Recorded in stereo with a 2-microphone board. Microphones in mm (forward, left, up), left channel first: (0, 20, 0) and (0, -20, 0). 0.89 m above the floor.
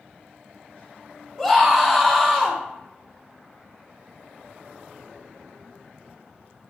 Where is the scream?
10° left (ahead or behind), 1.2 m.